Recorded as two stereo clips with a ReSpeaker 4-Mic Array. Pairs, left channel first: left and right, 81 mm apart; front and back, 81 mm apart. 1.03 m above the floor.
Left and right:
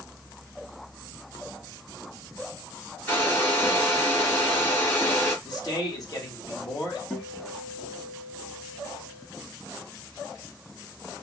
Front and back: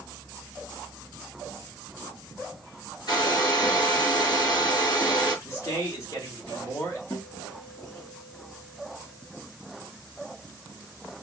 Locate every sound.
3.1 s a hair dryer: 30° left, 3 m
5.5 s a man speaking: 55° left, 1.9 m
7.1 s a guitar: 30° left, 2 m